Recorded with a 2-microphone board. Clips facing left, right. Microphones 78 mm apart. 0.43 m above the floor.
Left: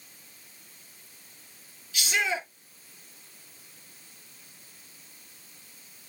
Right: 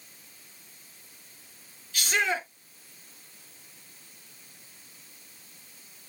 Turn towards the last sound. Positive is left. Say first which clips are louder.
# right 1 dB
turn(degrees=-50)  # may be behind; listen again after turning